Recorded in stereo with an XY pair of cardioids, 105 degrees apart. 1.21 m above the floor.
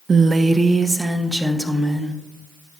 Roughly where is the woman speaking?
Ahead right.